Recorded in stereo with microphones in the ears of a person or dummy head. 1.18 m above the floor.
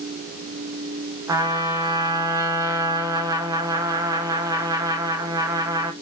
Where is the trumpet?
15° right (ahead or behind), 0.7 m.